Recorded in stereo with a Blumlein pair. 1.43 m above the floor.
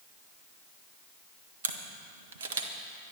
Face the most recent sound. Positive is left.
turn(degrees=-60)